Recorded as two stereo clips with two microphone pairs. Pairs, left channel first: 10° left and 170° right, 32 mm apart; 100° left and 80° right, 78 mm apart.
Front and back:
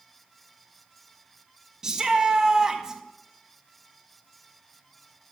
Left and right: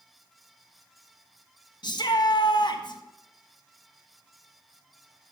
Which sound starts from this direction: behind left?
A shout, at 1.8 s.